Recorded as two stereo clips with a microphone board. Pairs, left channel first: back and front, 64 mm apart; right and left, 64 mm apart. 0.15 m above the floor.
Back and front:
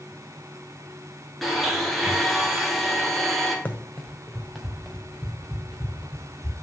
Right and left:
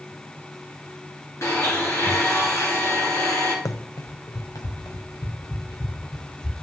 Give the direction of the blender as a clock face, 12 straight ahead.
3 o'clock.